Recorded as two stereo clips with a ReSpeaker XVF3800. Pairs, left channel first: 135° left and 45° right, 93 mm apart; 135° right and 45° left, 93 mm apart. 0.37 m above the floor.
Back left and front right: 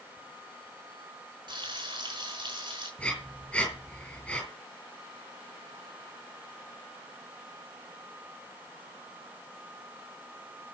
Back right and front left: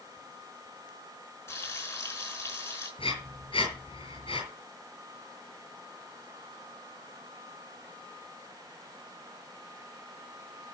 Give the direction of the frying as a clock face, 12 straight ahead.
3 o'clock.